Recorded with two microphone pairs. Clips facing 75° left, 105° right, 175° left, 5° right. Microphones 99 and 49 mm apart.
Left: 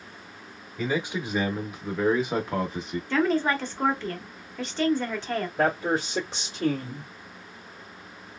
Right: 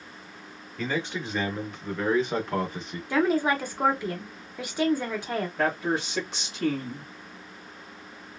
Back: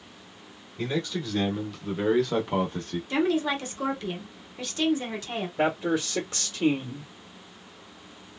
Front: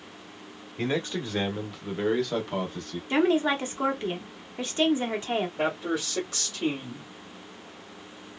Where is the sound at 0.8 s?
5° left, 1.0 m; by 3.0 s 160° left, 0.9 m.